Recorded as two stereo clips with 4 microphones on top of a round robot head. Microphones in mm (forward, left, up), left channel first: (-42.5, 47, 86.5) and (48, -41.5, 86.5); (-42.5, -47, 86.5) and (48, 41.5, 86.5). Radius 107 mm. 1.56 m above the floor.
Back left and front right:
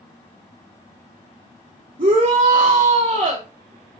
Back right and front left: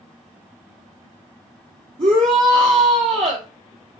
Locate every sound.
2.0 s a shout: straight ahead, 2 m